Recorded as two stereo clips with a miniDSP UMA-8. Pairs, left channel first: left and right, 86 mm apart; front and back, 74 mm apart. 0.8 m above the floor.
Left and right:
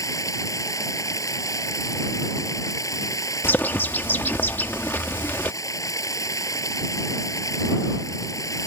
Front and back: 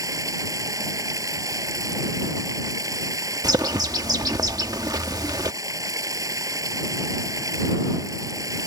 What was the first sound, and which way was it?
Running water, 140° left.